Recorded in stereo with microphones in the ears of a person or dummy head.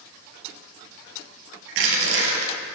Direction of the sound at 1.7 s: 80° right.